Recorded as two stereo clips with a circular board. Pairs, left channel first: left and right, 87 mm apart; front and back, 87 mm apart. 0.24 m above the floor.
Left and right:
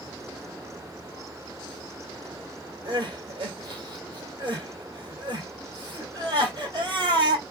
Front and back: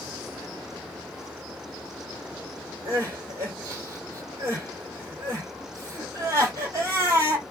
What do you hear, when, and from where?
2.9 s crying: 125° right, 1.9 m